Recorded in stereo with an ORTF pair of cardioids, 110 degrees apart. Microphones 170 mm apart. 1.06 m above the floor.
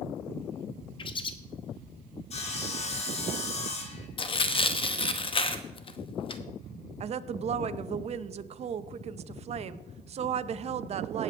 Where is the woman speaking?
40° right, 0.7 m.